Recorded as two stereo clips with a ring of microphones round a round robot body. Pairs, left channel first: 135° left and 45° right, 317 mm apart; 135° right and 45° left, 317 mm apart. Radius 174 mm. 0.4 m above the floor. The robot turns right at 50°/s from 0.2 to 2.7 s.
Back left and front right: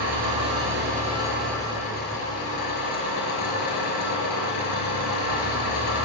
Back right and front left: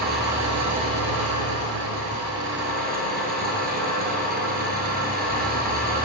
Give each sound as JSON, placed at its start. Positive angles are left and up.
{"t": 0.0, "sound": "an engine running", "azimuth_deg": -15, "distance_m": 6.0}